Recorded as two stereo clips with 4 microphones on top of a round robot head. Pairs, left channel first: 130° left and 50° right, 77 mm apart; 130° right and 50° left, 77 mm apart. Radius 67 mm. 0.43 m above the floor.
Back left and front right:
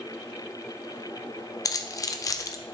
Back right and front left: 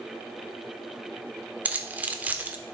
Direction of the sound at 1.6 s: 115° left.